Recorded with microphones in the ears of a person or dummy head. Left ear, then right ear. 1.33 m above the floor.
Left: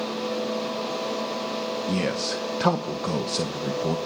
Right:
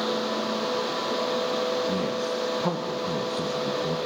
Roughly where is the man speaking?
Left.